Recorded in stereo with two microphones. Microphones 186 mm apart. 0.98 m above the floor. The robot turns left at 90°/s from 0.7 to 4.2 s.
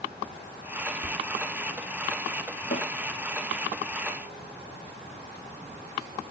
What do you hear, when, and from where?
1.0 s whispering: 70° left (ahead or behind), 1.8 m; by 1.2 s 60° left (ahead or behind), 1.8 m
2.7 s a snare drum: 60° left (ahead or behind), 2.5 m; by 2.9 s 50° left (ahead or behind), 2.5 m